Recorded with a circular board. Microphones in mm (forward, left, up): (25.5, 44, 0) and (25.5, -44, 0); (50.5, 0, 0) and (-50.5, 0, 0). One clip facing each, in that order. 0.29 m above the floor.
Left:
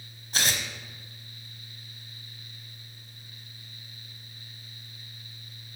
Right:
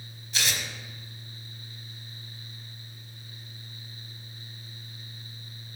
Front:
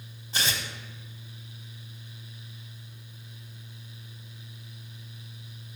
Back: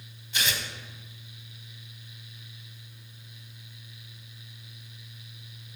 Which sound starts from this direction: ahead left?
Tearing paper, at 0.3 s.